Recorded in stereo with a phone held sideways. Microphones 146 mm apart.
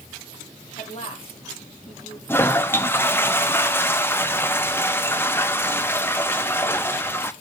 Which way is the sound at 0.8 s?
45° left (ahead or behind).